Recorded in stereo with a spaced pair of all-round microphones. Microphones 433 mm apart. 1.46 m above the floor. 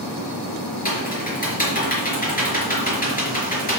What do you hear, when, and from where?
0.8 s typing on a keyboard: 20° left (ahead or behind), 3.5 m